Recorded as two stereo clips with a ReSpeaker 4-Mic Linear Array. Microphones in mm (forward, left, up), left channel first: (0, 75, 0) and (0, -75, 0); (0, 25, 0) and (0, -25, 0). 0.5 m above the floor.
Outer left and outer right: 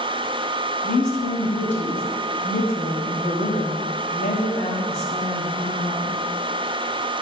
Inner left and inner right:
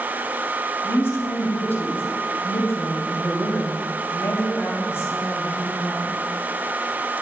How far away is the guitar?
I don't hear a guitar.